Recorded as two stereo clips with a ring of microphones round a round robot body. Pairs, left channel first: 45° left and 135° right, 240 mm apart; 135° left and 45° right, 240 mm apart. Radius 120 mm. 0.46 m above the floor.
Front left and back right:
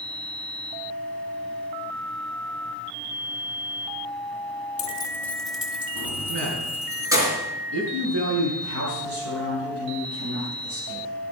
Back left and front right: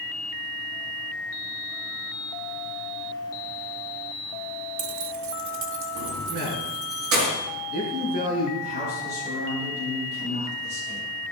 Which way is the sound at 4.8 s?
15° right.